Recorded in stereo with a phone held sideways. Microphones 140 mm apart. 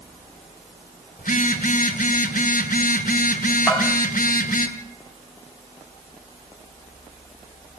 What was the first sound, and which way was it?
A phone buzzing, 80° left.